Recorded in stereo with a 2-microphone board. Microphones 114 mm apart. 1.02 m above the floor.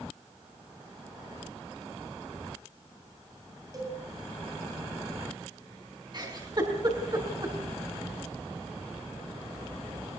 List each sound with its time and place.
3.7 s a cowbell: 30° right (ahead or behind), 7.5 m
6.1 s a giggle: 40° right (ahead or behind), 4.5 m